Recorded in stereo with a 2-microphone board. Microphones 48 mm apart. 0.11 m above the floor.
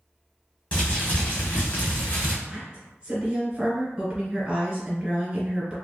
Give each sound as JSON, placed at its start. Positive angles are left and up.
{"t": 0.7, "sound": "crumpling", "side_deg": 35, "distance_m": 1.2}
{"t": 2.5, "sound": "a woman speaking", "side_deg": -15, "distance_m": 1.5}